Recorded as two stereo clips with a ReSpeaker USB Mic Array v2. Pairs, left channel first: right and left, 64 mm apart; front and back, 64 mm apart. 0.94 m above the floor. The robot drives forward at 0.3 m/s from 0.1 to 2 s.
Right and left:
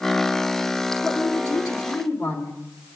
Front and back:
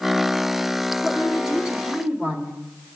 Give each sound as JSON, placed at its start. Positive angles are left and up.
{"t": 1.0, "sound": "a woman speaking", "azimuth_deg": -100, "distance_m": 2.0}